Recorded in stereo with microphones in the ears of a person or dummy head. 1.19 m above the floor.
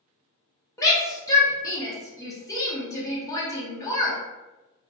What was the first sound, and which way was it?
A shout, 15° left (ahead or behind).